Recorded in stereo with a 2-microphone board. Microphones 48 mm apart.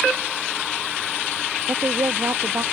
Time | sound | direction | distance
1.7 | a woman speaking | 80° right | ?